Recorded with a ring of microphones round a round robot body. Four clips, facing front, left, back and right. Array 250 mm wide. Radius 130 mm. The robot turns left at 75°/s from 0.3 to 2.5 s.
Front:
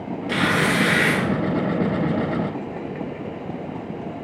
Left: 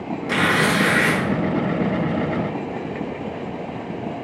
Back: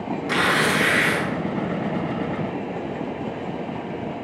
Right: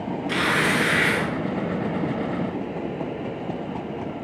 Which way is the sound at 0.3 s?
150° left.